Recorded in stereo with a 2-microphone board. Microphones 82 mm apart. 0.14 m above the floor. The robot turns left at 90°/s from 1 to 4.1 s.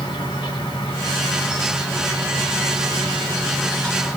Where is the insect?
75° left, 2.5 m; by 4.2 s 155° left, 2.5 m.